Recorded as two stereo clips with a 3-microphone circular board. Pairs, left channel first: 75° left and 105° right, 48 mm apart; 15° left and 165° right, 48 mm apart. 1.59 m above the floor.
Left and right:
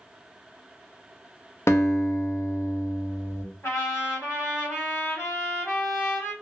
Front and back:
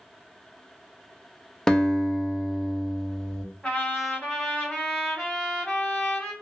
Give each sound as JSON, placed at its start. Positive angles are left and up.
{"t": 1.7, "sound": "a guitar", "azimuth_deg": 90, "distance_m": 0.5}
{"t": 3.6, "sound": "a trumpet", "azimuth_deg": 85, "distance_m": 1.6}